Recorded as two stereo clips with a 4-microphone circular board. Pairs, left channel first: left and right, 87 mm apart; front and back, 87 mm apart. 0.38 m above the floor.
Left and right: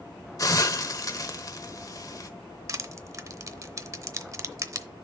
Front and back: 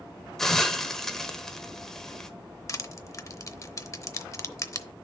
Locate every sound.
0.4 s a hiss: 85° left, 0.9 m
2.7 s crushing: 45° right, 0.7 m